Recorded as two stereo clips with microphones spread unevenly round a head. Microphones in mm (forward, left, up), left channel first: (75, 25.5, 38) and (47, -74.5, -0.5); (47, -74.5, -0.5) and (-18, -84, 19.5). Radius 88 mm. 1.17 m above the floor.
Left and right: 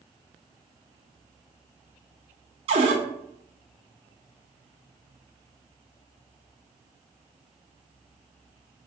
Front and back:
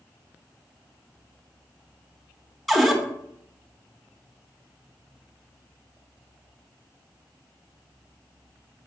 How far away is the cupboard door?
About 0.7 m.